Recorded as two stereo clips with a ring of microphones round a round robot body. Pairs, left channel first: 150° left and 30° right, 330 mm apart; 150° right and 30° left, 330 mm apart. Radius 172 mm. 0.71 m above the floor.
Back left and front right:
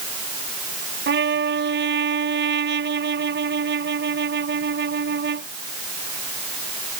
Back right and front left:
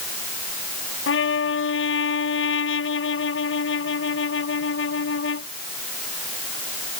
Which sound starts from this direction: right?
A trumpet, at 1.1 s.